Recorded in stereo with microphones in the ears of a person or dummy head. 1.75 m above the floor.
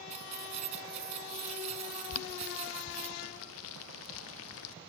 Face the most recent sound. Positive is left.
turn(degrees=85)